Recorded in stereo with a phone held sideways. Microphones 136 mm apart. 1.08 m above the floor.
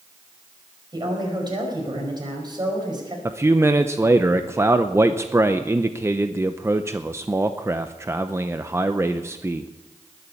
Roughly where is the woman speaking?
Right.